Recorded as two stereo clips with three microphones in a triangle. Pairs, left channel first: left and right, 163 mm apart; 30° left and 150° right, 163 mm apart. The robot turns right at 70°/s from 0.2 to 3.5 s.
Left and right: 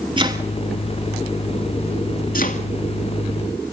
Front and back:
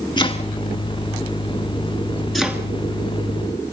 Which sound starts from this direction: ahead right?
Chopping, at 0.2 s.